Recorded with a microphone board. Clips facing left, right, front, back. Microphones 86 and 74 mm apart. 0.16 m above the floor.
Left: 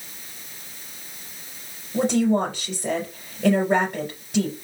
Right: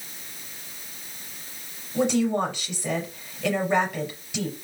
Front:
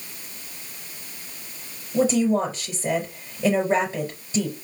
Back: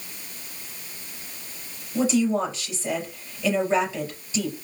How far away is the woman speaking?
About 4 m.